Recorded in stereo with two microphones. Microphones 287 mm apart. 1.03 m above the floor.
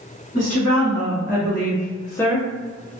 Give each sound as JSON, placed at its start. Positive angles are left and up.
{"t": 0.3, "sound": "a woman speaking", "side_deg": 50, "distance_m": 1.3}